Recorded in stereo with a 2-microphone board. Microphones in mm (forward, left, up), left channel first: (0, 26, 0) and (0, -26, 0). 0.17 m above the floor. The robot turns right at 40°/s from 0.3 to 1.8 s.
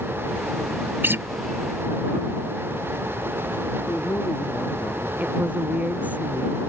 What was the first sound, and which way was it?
A guitar, 45° right (ahead or behind).